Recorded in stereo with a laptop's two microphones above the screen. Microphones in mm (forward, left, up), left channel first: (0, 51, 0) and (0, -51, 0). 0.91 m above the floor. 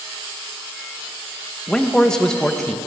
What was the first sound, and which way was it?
A man speaking, 5° left (ahead or behind).